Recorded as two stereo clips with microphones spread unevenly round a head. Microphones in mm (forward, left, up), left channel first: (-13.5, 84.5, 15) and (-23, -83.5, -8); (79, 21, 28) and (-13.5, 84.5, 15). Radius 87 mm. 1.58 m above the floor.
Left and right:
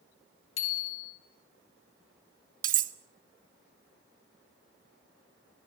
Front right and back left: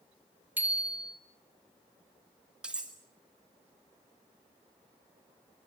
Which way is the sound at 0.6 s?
70° left.